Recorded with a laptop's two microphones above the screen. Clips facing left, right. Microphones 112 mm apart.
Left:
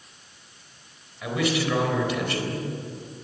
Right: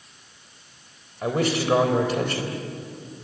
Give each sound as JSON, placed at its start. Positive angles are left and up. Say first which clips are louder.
{"t": 1.2, "sound": "a man speaking", "louder": "right 2 dB", "side_deg": -40, "distance_m": 3.5}